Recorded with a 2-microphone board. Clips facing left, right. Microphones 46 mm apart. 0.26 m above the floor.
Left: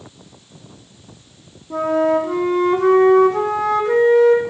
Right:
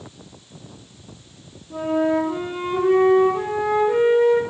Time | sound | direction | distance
1.7 | a flute | 70° left (ahead or behind) | 4 m